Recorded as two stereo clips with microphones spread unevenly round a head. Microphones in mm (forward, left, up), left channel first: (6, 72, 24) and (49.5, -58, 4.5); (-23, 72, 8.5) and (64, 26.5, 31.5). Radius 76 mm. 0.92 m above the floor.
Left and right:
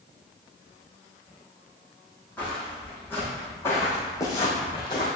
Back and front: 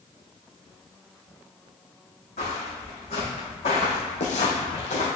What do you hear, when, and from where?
2.4 s footsteps: 175° right, 3 m; by 5.1 s 165° left, 2 m